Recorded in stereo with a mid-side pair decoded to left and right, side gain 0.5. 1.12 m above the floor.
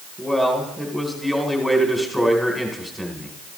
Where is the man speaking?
5° left, 3.5 m.